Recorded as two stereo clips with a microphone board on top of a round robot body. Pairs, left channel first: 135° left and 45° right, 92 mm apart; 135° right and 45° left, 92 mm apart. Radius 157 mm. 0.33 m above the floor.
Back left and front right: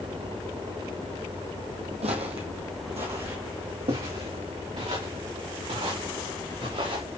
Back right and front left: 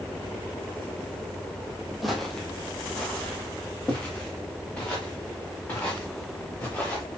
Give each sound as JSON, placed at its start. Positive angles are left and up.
{"t": 2.0, "sound": "footsteps", "azimuth_deg": -45, "distance_m": 1.2}